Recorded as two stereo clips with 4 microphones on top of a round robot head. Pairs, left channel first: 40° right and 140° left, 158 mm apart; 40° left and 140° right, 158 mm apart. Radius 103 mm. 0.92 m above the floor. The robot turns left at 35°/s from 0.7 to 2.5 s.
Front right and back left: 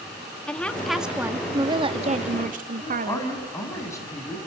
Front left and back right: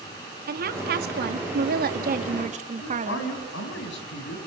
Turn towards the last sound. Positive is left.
turn(degrees=35)